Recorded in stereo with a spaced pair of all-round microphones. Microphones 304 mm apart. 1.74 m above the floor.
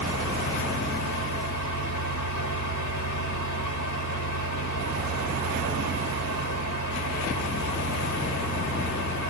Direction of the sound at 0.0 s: 75° left (ahead or behind).